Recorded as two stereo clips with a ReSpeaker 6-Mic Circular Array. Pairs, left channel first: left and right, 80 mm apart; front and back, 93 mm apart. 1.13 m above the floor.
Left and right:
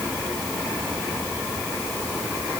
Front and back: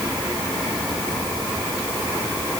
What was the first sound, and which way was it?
Only background noise.